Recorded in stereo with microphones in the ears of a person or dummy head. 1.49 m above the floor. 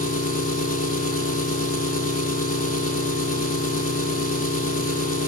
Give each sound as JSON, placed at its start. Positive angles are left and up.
{"t": 0.0, "sound": "an engine running", "side_deg": 50, "distance_m": 1.9}